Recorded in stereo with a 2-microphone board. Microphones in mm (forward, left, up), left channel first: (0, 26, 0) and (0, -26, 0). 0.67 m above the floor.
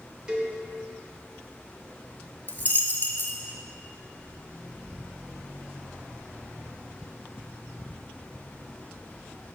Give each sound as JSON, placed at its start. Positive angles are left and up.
{"t": 0.3, "sound": "a cowbell", "side_deg": -20, "distance_m": 1.1}
{"t": 2.5, "sound": "a dropped coin", "side_deg": 35, "distance_m": 0.9}